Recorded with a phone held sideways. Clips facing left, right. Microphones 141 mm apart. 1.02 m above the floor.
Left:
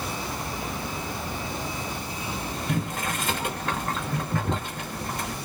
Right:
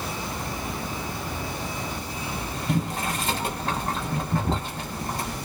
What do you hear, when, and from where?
2.7 s boiling: 35° right (ahead or behind), 1.3 m